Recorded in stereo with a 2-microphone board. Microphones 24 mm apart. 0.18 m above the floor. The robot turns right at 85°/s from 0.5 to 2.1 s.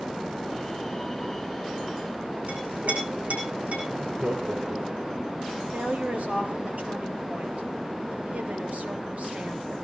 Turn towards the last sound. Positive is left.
turn(degrees=-70)  # may be behind; listen again after turning